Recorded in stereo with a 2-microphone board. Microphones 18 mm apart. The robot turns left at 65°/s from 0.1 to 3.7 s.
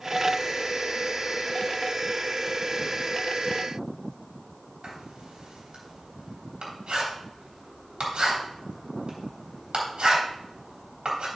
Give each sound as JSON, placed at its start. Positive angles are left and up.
{"t": 4.8, "sound": "writing", "side_deg": -80, "distance_m": 3.5}